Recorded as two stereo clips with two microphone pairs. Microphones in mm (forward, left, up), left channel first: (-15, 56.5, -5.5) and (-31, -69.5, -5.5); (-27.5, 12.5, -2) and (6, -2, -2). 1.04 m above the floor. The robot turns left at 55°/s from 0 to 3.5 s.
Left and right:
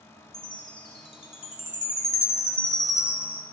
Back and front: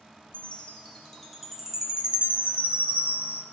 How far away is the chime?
About 1.0 m.